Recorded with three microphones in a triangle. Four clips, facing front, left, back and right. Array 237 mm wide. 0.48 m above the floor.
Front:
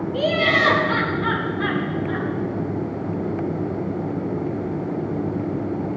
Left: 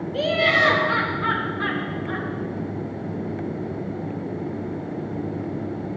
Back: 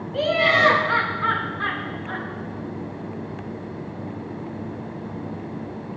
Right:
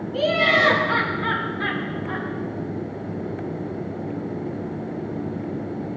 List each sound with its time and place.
0.1 s laughter: 170° left, 5 m; by 2.3 s 155° right, 5.5 m